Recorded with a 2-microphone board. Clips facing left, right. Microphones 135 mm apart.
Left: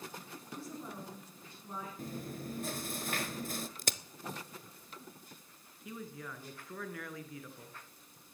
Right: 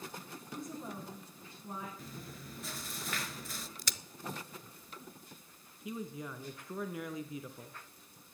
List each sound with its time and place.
0.5 s a woman speaking: 20° right (ahead or behind), 6.5 m
2.0 s chewing: 50° left (ahead or behind), 0.7 m
3.8 s a crack: 50° left (ahead or behind), 0.5 m
5.8 s a man speaking: 20° right (ahead or behind), 1.4 m